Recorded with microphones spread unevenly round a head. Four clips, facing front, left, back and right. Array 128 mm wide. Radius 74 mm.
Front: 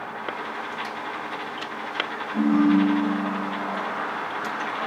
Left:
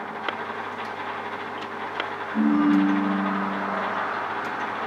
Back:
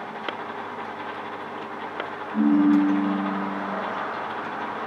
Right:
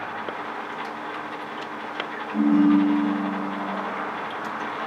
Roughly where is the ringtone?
Behind right.